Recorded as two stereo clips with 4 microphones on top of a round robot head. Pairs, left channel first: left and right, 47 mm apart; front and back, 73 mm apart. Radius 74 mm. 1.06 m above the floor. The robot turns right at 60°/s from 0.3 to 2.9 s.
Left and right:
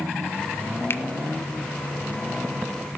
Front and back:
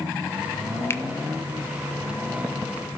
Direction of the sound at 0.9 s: 55° left.